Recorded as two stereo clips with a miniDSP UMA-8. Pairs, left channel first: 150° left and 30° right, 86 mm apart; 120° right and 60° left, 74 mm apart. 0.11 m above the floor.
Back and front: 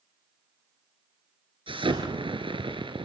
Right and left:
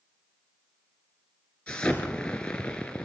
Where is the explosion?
50° right, 3.5 m.